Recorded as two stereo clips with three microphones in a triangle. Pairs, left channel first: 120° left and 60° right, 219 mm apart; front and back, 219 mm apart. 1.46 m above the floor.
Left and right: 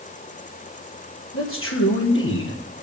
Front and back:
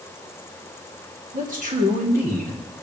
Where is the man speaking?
130° left, 1.6 m.